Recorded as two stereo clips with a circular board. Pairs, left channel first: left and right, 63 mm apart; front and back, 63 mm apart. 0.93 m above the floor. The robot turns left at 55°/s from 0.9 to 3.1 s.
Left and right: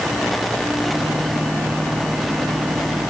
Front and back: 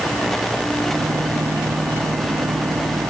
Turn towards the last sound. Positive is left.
No sound to turn to.